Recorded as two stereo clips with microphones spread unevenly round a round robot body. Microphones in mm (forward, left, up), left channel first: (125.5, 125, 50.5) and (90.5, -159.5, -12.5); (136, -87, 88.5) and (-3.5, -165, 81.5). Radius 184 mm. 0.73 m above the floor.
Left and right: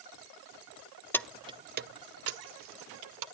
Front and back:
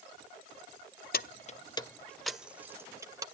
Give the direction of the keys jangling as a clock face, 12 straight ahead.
12 o'clock.